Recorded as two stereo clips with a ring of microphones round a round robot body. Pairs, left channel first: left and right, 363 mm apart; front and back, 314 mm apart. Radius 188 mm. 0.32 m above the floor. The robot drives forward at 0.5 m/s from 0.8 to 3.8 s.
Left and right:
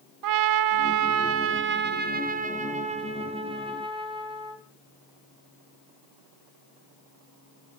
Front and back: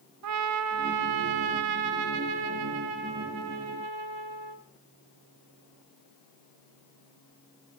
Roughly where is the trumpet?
Behind right.